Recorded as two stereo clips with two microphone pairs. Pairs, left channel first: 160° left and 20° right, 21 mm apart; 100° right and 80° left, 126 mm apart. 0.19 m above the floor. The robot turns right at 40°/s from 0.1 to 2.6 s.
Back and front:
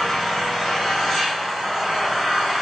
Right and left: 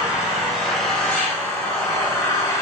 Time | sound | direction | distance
0.0 | an engine running | 145° left | 1.3 m